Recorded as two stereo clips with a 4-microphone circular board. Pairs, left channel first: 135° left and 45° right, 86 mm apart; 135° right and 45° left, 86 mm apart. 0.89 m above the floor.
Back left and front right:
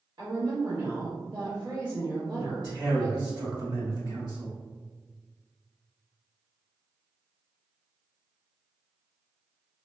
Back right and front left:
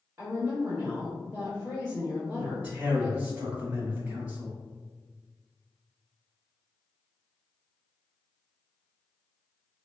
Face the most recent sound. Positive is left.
turn(degrees=-25)